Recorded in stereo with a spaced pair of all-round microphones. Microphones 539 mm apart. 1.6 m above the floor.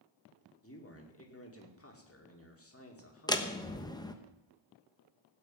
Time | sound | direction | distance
0.6 | a man speaking | 25° left (ahead or behind) | 2 m
3.3 | a door slam | 5° left (ahead or behind) | 1.1 m